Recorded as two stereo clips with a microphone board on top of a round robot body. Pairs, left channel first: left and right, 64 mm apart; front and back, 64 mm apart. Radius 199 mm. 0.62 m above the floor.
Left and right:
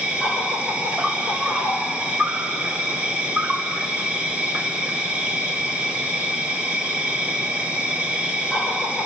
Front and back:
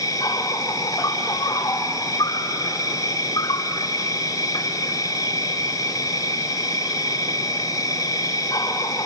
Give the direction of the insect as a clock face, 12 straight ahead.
1 o'clock.